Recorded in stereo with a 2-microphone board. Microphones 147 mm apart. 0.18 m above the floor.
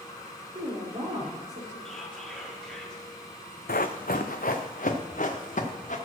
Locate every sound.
0.6 s a woman speaking: 55° right (ahead or behind), 3.5 m
1.9 s whispering: 5° left (ahead or behind), 5 m
3.7 s running footsteps: 80° left, 0.9 m; by 6.0 s 60° left (ahead or behind), 2 m